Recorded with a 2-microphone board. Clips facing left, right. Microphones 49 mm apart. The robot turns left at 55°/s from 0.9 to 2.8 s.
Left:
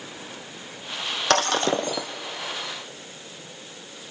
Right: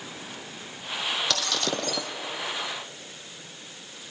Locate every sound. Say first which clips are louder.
1.3 s breaking glass: left 7 dB; 50° left, 1.2 m; by 2.1 s 5° left, 1.2 m